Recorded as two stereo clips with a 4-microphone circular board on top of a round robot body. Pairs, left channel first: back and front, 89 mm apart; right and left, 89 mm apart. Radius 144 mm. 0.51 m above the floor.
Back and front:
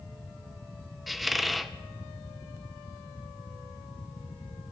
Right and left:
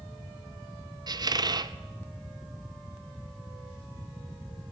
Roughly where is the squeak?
Left.